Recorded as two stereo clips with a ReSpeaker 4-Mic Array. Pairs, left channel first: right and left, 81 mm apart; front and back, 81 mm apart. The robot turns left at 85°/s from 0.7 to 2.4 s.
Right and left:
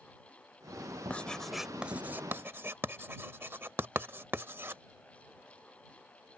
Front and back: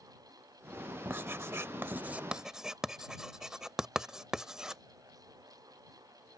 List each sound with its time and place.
1.1 s writing: 145° right; by 4.8 s 105° left